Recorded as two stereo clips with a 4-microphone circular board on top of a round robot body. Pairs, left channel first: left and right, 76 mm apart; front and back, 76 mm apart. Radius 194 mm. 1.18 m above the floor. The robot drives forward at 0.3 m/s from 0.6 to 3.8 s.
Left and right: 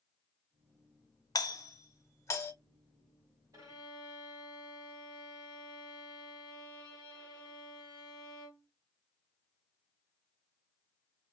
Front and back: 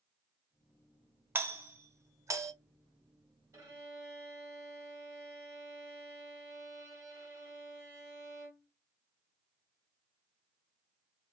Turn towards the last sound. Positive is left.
turn(degrees=-145)